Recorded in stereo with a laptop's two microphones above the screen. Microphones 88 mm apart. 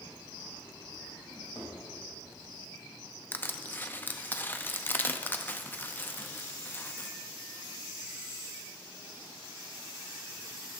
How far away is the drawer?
About 3.5 m.